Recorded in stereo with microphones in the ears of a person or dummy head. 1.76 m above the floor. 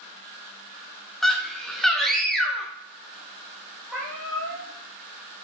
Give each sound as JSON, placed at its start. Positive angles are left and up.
{"t": 1.2, "sound": "a scream", "side_deg": 10, "distance_m": 0.6}
{"t": 3.9, "sound": "a cat meowing", "side_deg": 0, "distance_m": 1.5}